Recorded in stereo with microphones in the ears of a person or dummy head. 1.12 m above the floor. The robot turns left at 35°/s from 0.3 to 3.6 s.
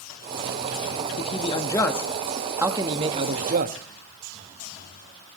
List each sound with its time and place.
1.2 s a man speaking: 35° left, 1.5 m; by 3.8 s 50° right, 1.5 m